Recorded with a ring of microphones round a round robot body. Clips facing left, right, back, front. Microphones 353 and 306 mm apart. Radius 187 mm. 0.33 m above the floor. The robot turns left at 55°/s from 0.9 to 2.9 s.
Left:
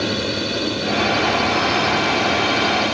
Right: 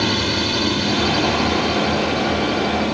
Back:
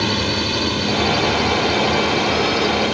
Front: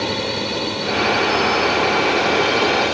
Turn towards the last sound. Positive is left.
turn(degrees=95)